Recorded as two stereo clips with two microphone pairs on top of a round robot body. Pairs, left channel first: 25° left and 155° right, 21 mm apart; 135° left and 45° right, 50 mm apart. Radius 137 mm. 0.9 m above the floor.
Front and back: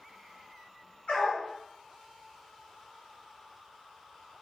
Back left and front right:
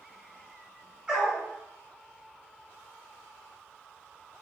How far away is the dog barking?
About 5.5 m.